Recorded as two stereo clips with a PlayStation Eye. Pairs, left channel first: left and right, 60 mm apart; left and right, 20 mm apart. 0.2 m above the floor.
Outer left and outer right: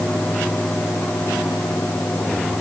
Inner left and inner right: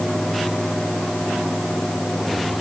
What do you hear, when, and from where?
Only background noise.